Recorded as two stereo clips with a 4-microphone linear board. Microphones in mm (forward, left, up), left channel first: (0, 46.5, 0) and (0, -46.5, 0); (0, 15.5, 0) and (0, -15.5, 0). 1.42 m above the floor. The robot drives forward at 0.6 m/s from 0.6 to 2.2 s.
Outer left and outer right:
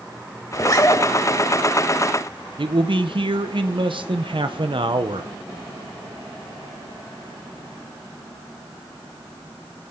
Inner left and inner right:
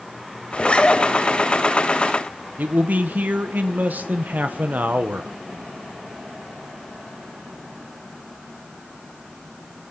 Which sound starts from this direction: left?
A zipper, at 0.5 s.